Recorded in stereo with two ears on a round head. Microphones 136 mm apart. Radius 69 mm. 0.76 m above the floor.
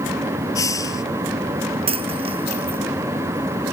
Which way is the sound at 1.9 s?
40° right (ahead or behind).